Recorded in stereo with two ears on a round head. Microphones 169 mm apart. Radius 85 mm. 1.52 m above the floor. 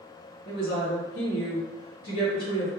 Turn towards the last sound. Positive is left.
turn(degrees=35)  # may be behind; listen again after turning